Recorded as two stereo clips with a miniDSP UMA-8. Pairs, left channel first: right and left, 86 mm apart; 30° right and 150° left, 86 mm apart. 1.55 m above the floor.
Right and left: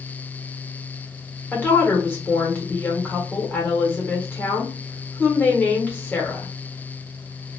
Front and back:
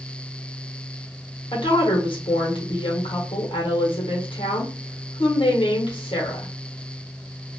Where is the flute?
I don't hear a flute.